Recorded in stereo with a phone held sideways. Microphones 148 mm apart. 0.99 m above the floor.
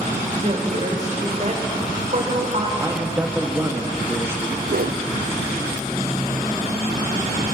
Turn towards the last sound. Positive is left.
turn(degrees=-70)  # may be behind; listen again after turning